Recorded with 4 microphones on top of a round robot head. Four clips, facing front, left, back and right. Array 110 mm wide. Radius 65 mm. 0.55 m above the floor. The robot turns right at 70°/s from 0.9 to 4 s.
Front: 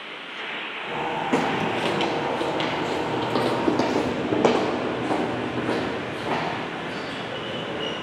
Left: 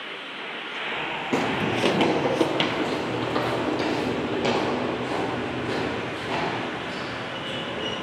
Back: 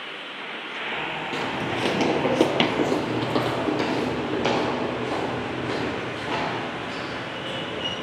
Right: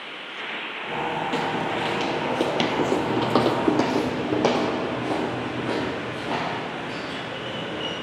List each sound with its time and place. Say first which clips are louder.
1.3 s footsteps: left 1 dB, front 4 dB; 35° left, 0.9 m; by 7.9 s 15° right, 4.5 m